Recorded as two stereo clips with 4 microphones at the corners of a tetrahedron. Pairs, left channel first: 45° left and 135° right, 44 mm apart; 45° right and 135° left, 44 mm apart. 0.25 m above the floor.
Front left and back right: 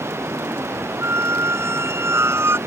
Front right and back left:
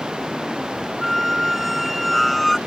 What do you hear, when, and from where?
0.0 s running water: 150° right
1.0 s a squeak: 135° right